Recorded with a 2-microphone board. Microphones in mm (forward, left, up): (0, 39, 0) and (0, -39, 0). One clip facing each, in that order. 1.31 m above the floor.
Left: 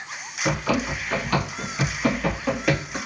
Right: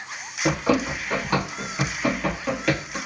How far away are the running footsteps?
About 1.5 m.